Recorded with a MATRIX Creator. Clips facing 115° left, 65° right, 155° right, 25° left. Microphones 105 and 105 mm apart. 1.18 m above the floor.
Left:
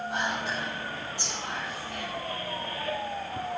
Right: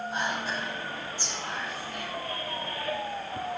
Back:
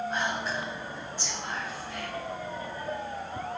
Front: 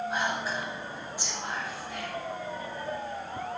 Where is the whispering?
100° left, 4 m.